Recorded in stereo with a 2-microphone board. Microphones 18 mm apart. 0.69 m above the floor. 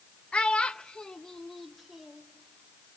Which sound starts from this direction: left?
A child speaking, at 0.3 s.